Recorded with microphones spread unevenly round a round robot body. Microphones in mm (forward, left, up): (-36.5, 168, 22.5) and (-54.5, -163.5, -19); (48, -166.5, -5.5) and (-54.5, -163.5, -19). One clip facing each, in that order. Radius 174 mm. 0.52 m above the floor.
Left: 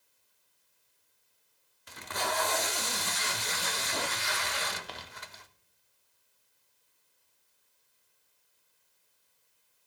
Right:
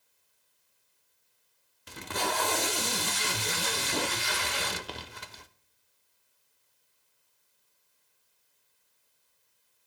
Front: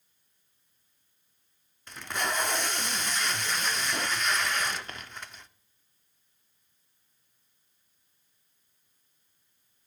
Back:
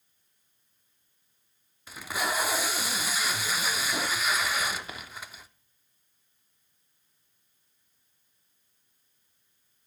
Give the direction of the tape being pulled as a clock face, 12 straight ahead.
4 o'clock.